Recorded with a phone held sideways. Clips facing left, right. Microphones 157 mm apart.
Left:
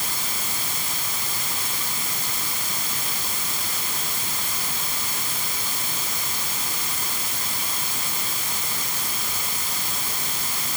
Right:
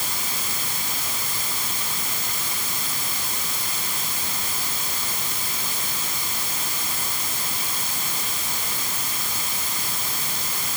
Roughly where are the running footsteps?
No running footsteps in this recording.